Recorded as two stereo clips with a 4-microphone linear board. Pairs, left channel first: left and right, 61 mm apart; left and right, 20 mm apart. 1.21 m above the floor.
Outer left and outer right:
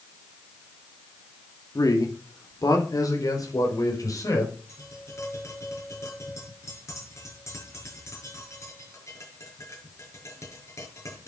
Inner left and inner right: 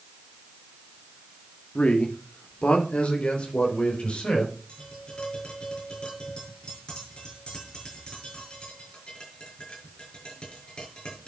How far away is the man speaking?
About 2.5 m.